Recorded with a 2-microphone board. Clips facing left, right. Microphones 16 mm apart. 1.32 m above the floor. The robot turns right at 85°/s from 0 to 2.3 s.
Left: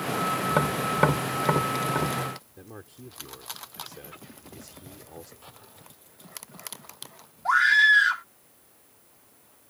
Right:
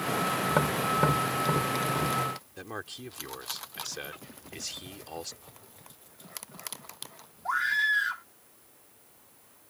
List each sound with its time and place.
0.5 s tapping: centre (ahead or behind); by 2.2 s 35° left (ahead or behind)
2.6 s a man speaking: 80° right
5.4 s a drawer: 40° left (ahead or behind)
7.5 s a scream: 40° left (ahead or behind)